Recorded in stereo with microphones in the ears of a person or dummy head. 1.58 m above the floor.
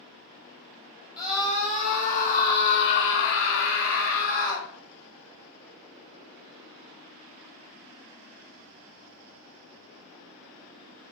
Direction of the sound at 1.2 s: Centre (ahead or behind).